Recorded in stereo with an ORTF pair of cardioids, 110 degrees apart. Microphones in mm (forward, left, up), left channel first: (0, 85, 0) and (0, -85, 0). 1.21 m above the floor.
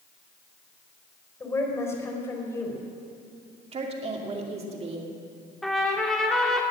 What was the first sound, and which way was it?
A woman speaking, 15° left.